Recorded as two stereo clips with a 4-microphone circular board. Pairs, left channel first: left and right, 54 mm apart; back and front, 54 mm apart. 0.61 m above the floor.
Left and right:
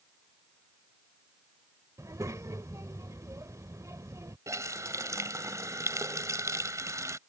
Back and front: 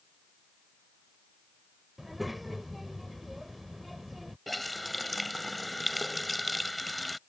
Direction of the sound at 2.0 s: 90° right.